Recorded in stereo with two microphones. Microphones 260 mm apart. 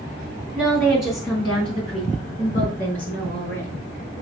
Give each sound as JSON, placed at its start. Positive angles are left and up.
{"t": 0.6, "sound": "a woman speaking", "side_deg": 5, "distance_m": 3.0}